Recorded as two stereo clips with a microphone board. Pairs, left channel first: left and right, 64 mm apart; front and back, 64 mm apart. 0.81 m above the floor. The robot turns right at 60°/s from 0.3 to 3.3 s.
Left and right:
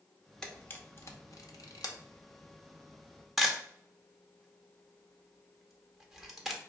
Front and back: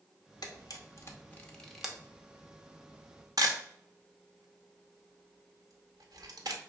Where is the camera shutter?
10° left, 0.8 m; by 6.6 s straight behind, 0.8 m.